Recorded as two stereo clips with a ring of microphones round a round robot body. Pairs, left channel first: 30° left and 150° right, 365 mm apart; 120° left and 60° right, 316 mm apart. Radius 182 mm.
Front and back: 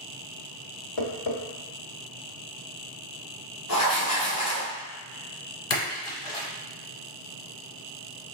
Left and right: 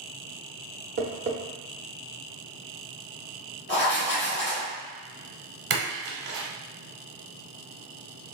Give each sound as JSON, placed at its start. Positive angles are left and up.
{"t": 1.0, "sound": "tapping", "azimuth_deg": 0, "distance_m": 0.9}
{"t": 3.7, "sound": "writing", "azimuth_deg": 70, "distance_m": 1.2}
{"t": 5.7, "sound": "a splash", "azimuth_deg": -20, "distance_m": 1.2}